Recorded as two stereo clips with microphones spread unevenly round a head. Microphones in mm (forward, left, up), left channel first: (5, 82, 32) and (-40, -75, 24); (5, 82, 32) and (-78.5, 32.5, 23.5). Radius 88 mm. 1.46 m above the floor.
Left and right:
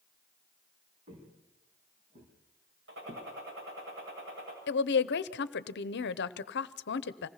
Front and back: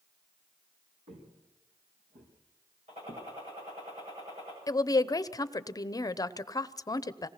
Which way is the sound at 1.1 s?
155° right.